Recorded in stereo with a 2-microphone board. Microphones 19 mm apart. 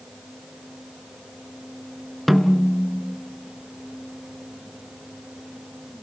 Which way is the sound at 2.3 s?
Centre (ahead or behind).